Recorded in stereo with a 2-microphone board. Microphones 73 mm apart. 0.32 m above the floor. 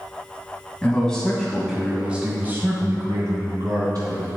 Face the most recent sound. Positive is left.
turn(degrees=-60)  # may be behind; listen again after turning